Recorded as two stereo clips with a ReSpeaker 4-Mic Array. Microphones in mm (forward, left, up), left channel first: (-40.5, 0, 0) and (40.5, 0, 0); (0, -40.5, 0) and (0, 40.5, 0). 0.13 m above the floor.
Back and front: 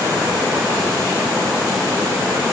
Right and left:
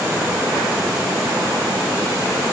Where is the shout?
I don't hear a shout.